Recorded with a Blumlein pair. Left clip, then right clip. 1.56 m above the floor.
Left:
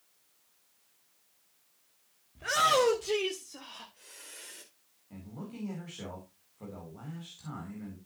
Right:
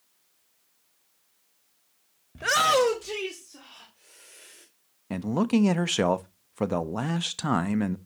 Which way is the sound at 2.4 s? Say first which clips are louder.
Right 4 dB; 35° right.